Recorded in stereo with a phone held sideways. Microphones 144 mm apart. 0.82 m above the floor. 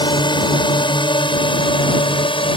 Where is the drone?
30° left (ahead or behind); by 2.6 s 35° left (ahead or behind).